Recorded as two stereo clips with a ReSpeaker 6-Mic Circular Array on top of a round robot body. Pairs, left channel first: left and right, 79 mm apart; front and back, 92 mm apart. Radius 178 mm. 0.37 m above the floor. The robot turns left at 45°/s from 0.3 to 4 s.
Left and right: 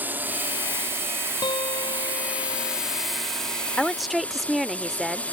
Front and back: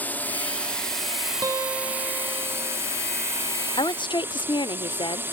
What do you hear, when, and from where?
0.0 s a drone: 50° right; by 5.3 s 140° left
1.4 s a guitar: 125° left; by 2.8 s 65° left
3.8 s a woman speaking: 10° left; by 5.2 s straight ahead